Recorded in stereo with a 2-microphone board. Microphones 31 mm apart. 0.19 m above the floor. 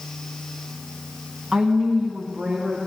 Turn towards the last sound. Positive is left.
turn(degrees=-40)  # may be behind; listen again after turning